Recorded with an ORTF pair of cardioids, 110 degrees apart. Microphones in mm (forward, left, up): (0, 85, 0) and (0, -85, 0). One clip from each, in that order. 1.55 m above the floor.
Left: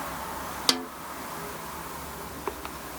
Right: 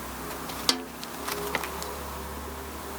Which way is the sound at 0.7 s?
5° left.